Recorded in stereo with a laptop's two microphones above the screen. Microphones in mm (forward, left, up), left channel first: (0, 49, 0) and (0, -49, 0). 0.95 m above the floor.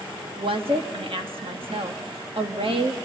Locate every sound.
0.4 s a woman speaking: 65° right (ahead or behind), 1.6 m